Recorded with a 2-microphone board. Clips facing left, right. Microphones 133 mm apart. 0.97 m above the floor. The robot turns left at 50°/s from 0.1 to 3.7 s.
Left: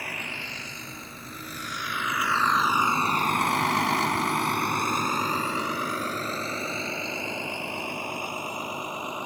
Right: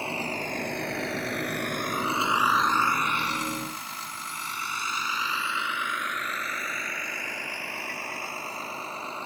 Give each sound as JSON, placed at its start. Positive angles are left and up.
{"t": 0.0, "sound": "a vehicle", "side_deg": -25}